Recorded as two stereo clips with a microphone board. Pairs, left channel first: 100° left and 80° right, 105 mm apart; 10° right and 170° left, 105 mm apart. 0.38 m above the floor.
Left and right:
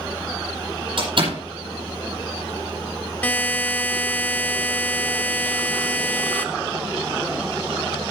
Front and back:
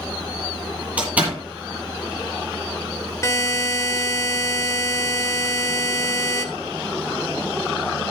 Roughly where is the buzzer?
Ahead left.